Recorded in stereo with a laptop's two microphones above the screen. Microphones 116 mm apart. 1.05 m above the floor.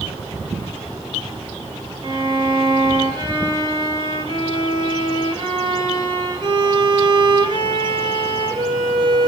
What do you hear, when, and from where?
2.0 s a violin: 40° right (ahead or behind), 4.5 m